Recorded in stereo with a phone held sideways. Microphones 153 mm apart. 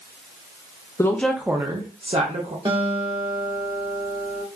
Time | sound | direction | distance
1.0 | a woman speaking | 20° left (ahead or behind) | 0.5 m
2.6 | a guitar | 35° right (ahead or behind) | 1.3 m